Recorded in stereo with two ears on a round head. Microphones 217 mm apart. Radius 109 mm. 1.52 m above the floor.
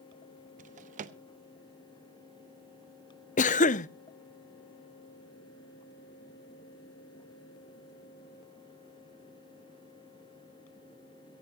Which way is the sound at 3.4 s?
30° left (ahead or behind).